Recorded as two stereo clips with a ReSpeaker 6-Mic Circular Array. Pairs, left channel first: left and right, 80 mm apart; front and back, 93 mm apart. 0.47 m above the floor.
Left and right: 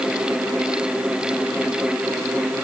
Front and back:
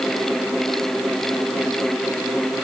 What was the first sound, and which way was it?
Only background noise.